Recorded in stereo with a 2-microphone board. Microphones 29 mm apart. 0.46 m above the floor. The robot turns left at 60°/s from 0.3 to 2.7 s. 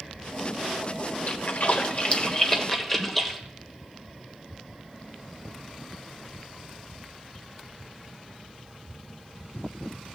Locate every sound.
1.3 s a splash: 60° left (ahead or behind), 1.3 m; by 3.4 s 10° left (ahead or behind), 1.3 m